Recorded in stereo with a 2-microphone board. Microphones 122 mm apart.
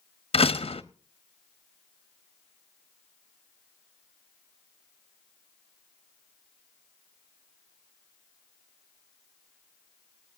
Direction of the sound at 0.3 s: 55° left (ahead or behind).